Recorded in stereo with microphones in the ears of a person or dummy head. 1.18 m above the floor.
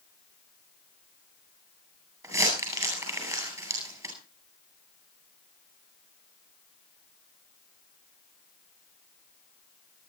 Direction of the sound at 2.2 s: 20° right (ahead or behind).